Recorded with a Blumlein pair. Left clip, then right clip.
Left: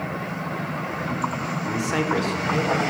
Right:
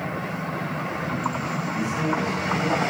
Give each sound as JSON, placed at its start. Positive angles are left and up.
{"t": 1.7, "sound": "a man speaking", "azimuth_deg": 40, "distance_m": 5.5}